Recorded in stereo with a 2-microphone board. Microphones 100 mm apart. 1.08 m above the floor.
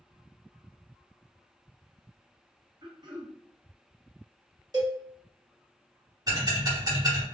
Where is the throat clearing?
50° right (ahead or behind), 0.8 m.